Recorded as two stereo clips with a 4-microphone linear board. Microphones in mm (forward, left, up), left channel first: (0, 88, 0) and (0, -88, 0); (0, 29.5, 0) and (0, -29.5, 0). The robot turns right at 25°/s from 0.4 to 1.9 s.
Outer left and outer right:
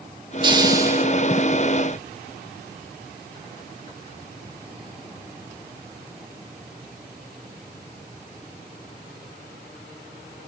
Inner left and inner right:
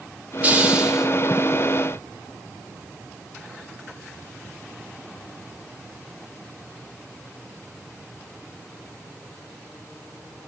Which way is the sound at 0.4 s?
25° right (ahead or behind).